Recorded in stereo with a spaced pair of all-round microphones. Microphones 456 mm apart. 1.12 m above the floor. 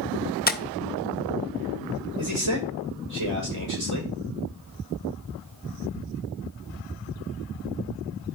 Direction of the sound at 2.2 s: 80° right.